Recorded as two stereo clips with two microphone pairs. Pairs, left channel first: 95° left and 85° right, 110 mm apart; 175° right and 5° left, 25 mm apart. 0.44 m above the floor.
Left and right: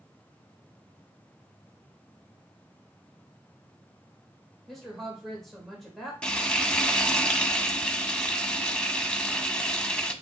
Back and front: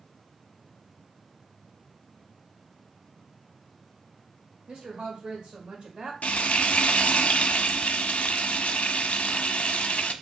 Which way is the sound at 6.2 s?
175° left.